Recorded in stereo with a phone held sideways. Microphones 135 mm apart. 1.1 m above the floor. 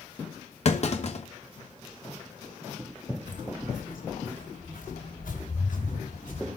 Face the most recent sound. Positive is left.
turn(degrees=75)  # may be behind; listen again after turning